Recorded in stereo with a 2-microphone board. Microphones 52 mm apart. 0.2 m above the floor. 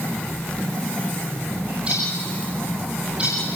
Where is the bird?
25° right (ahead or behind), 9 m.